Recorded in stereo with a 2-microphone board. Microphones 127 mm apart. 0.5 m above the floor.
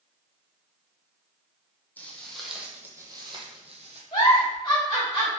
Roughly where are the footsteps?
Centre.